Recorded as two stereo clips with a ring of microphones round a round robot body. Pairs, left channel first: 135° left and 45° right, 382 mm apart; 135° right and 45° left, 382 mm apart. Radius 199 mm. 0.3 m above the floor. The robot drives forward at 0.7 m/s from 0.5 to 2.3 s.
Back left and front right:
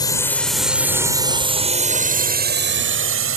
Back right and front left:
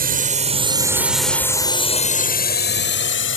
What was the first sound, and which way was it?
A drone, 70° left.